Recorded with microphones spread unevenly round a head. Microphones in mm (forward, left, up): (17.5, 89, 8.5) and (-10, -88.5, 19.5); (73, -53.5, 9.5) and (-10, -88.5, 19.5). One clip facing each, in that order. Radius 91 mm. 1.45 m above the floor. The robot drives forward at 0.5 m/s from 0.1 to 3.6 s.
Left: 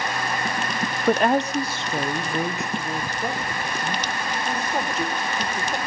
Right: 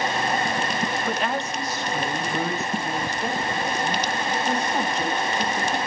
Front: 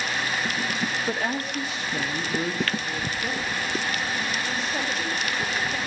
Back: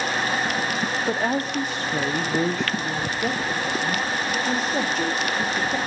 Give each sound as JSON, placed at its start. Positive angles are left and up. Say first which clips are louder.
{"t": 1.1, "sound": "a woman speaking", "louder": "left 7 dB, back 4 dB", "azimuth_deg": 120, "distance_m": 0.5}